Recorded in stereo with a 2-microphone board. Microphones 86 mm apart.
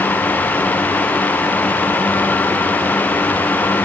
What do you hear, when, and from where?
Only background noise.